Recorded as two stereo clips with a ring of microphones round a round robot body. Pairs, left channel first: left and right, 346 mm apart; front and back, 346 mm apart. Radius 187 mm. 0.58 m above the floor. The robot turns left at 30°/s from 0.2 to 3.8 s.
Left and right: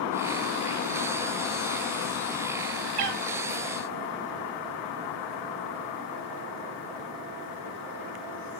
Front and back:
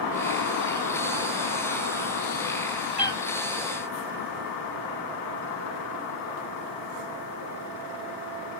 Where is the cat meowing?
75° right, 0.9 m; by 3.2 s 80° right, 0.9 m.